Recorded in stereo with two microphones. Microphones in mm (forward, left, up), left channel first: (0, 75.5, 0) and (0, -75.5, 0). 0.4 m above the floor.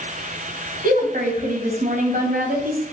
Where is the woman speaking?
60° right (ahead or behind), 2.5 m.